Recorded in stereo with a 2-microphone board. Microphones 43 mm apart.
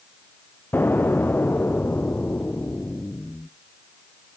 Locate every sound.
0.7 s an explosion: 50° left (ahead or behind), 1.0 m